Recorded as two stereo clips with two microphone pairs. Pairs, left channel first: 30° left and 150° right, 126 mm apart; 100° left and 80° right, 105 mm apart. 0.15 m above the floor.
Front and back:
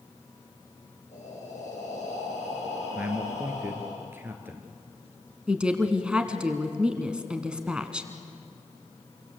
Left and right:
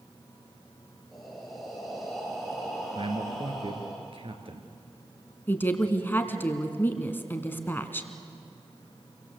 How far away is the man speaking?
About 2.5 m.